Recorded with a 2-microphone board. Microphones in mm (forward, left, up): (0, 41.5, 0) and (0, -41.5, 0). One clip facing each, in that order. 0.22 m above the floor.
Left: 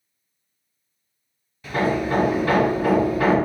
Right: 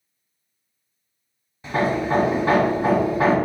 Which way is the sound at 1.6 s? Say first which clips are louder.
Even; 25° right (ahead or behind).